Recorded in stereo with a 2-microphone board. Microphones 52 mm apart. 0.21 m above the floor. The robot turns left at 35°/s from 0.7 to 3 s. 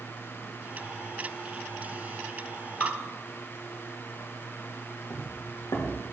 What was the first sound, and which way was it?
Dripping, 35° left (ahead or behind).